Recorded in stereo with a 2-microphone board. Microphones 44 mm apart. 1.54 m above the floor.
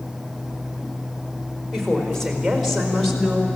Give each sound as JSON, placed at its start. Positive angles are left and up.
{"t": 1.7, "sound": "a woman speaking", "side_deg": 10, "distance_m": 5.0}